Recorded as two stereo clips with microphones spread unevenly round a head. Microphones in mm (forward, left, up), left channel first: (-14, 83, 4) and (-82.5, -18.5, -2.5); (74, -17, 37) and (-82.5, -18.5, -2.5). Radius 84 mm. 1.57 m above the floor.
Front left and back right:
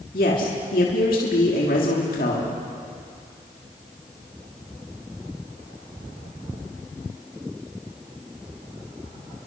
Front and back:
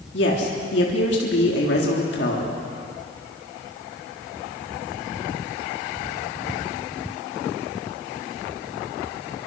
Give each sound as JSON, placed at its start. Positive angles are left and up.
{"t": 0.1, "sound": "a woman speaking", "azimuth_deg": 25, "distance_m": 3.5}